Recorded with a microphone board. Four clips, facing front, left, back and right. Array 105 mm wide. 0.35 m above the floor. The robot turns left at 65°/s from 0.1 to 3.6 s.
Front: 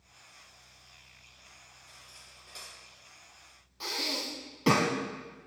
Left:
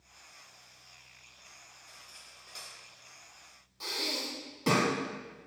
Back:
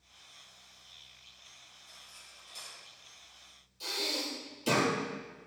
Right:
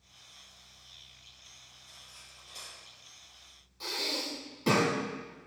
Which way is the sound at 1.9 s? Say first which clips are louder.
Left 2 dB, front 1 dB; 95° left.